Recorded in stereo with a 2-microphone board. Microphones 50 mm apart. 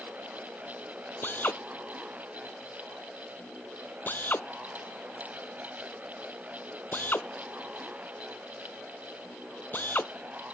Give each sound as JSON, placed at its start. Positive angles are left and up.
{"t": 1.2, "sound": "a drill", "side_deg": 40}